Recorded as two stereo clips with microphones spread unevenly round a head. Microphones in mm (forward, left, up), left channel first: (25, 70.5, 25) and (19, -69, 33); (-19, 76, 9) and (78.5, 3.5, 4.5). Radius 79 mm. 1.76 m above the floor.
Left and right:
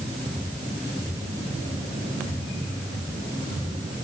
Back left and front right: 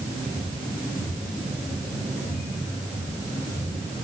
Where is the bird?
No bird in this recording.